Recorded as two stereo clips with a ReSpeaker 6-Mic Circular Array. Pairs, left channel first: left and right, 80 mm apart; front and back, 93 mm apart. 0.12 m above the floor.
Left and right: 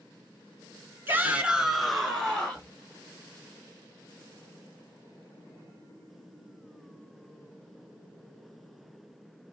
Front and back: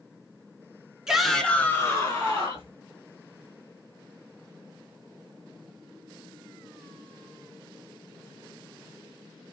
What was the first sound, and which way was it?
A shout, 105° right.